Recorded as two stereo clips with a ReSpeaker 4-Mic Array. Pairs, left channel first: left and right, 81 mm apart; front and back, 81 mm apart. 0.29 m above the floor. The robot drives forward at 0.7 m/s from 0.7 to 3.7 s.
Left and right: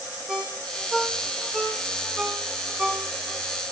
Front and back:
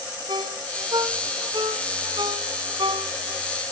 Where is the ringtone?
170° right, 7 m; by 3.7 s 175° right, 9 m.